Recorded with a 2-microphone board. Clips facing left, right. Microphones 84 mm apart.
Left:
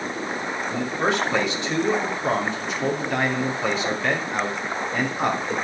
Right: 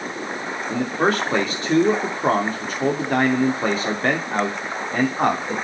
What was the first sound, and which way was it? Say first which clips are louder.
A man speaking: right 4 dB; 40° right (ahead or behind).